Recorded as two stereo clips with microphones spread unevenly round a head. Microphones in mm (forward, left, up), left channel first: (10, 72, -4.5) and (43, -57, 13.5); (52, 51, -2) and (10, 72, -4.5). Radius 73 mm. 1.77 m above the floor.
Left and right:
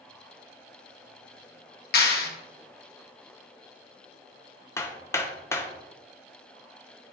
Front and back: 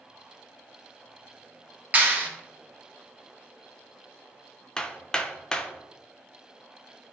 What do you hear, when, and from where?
1.9 s a clap: 95° left, 1.8 m
4.8 s hammering: 35° left, 0.9 m